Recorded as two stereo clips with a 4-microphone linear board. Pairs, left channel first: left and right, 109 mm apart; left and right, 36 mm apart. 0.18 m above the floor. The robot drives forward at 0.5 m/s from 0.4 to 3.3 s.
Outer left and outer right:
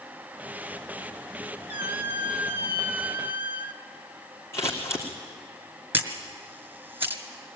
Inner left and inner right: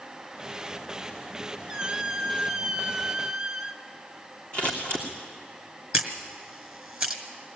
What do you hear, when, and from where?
1.7 s a squeak: 15° right (ahead or behind), 1.1 m
4.5 s scissors: 25° left (ahead or behind), 3 m
5.9 s a camera shutter: 20° right (ahead or behind), 1.9 m